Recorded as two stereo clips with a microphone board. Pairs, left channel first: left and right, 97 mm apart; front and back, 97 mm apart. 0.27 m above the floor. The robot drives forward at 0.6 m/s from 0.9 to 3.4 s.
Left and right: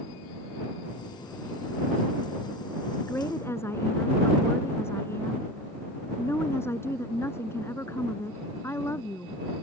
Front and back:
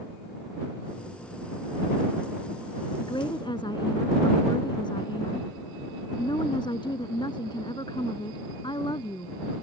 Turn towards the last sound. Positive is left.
turn(degrees=30)